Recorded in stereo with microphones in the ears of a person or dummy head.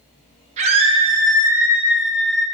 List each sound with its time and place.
0.6 s a scream: 35° right (ahead or behind), 1.5 m; by 2.4 s 5° left (ahead or behind), 1.7 m